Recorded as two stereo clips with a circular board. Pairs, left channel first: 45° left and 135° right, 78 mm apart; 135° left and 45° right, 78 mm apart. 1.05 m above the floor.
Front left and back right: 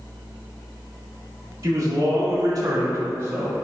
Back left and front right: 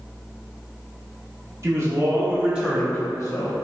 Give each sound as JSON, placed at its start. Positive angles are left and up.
{"t": 1.6, "sound": "a man speaking", "azimuth_deg": -90, "distance_m": 1.3}